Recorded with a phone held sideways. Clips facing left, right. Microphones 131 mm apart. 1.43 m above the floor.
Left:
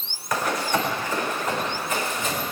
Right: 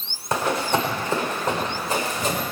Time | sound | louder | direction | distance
0.3 | running footsteps | right 2 dB | 30° right (ahead or behind) | 5 m